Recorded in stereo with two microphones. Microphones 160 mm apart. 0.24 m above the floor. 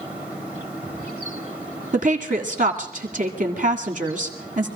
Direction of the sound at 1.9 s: 55° right (ahead or behind).